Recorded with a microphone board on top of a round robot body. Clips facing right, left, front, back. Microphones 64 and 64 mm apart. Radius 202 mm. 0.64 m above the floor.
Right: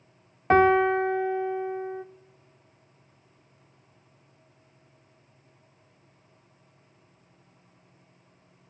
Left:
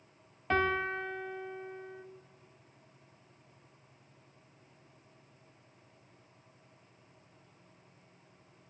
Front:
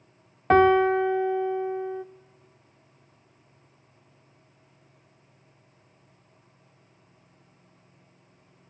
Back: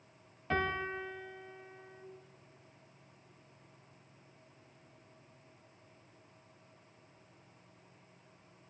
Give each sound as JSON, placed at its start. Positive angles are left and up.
{"t": 0.5, "sound": "a piano", "azimuth_deg": -35, "distance_m": 0.6}